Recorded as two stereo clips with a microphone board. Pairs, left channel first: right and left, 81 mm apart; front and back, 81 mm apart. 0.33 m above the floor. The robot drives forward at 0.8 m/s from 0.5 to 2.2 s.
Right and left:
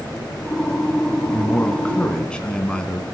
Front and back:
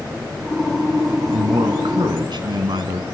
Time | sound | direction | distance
1.3 | a man speaking | 160° right | 2 m